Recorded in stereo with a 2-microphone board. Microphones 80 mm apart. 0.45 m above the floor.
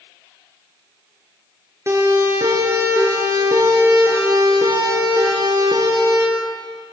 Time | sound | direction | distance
1.9 | a siren | 35° right (ahead or behind) | 6.5 m